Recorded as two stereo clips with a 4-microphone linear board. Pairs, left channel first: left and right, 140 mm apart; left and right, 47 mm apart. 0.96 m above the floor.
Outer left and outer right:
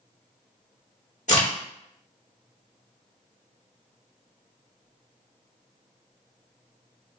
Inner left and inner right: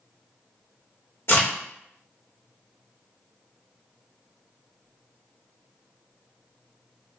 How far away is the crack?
About 1.3 m.